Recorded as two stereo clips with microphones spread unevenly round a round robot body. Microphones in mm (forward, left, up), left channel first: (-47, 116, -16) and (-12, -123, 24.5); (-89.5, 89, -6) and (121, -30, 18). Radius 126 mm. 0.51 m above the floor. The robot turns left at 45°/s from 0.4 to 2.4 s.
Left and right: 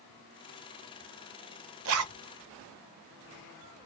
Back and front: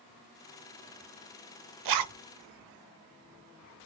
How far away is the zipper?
About 0.6 m.